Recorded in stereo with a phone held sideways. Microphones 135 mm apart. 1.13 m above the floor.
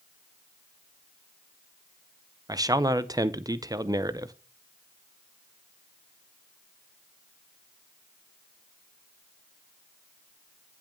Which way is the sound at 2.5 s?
25° right (ahead or behind).